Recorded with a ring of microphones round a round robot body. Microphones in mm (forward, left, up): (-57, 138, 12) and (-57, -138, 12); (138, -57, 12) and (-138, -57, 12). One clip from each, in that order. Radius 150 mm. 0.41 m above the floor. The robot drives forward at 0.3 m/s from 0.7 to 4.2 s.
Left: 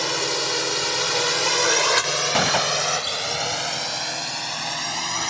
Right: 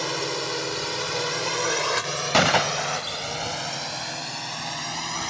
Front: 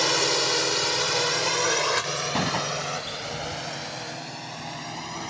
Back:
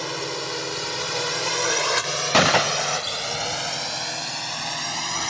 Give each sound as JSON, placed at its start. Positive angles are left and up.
{"t": 0.0, "sound": "a drone", "azimuth_deg": 40}
{"t": 2.3, "sound": "a gunshot", "azimuth_deg": -170}